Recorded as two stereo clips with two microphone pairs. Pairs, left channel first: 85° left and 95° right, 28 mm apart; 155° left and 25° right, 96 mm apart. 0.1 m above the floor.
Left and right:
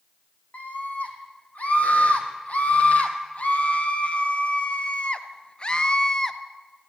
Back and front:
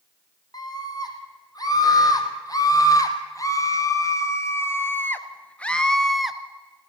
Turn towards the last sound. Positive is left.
turn(degrees=55)